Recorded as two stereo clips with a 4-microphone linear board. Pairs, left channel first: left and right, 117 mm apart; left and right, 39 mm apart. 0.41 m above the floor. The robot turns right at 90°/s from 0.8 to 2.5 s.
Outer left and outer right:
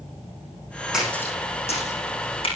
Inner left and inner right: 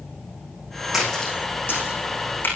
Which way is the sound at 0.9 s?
5° right (ahead or behind).